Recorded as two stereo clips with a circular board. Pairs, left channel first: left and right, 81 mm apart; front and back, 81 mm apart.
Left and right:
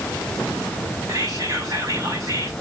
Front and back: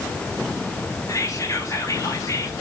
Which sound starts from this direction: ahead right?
Whispering, at 1.1 s.